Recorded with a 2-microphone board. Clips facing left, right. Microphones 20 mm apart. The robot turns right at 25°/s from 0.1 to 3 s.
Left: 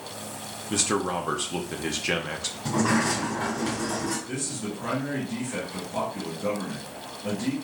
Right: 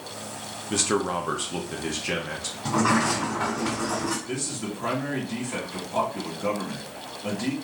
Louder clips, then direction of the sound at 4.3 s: Right 1 dB; 20° right (ahead or behind).